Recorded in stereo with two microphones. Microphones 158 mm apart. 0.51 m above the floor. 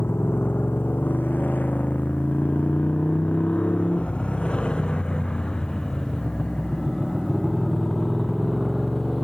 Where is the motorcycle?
15° left (ahead or behind); by 9.2 s centre (ahead or behind).